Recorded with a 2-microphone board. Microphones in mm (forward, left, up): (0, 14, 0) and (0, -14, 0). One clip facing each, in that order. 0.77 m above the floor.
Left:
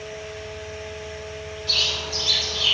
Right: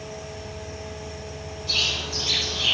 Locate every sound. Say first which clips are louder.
0.0 s an insect: left 2 dB; 50° right (ahead or behind), 1.1 m
1.7 s a bird: left 2 dB; 25° left (ahead or behind), 7.5 m